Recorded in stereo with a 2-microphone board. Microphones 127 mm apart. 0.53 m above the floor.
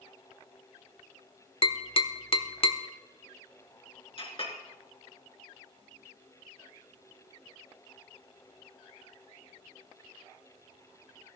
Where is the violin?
I don't hear a violin.